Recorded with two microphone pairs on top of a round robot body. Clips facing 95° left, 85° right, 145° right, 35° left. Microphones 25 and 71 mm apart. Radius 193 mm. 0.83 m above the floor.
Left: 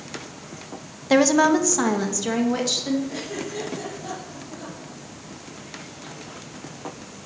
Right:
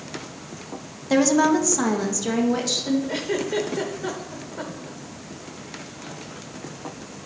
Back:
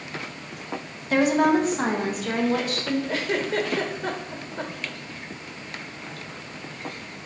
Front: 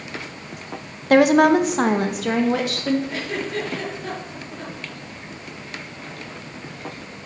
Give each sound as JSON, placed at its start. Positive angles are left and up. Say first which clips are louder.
{"t": 1.1, "sound": "a woman speaking", "louder": "left 1 dB, front 6 dB", "azimuth_deg": 40, "distance_m": 0.7}
{"t": 3.1, "sound": "a giggle", "louder": "right 6 dB, back 2 dB", "azimuth_deg": -90, "distance_m": 0.9}